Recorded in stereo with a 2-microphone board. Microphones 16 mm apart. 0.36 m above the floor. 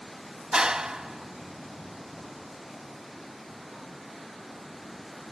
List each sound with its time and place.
0.5 s a clap: 65° right (ahead or behind), 1.8 m